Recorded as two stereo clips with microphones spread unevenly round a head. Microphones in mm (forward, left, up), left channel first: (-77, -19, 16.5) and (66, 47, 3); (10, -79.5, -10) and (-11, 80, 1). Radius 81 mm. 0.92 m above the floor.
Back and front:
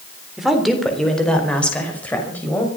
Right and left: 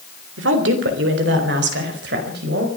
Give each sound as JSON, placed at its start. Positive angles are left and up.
{"t": 0.4, "sound": "a woman speaking", "azimuth_deg": 110, "distance_m": 3.5}